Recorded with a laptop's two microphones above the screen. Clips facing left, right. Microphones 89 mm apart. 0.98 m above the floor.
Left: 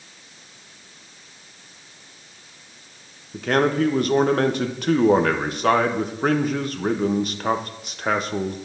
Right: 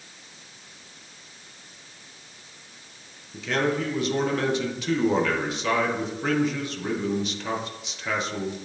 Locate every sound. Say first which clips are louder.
3.3 s a man speaking: left 6 dB; 50° left (ahead or behind), 0.7 m